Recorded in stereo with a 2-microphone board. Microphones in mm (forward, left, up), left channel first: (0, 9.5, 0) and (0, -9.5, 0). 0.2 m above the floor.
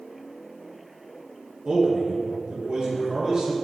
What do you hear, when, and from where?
1.6 s a man speaking: 60° right (ahead or behind), 2.5 m; by 3.6 s 45° right (ahead or behind), 3 m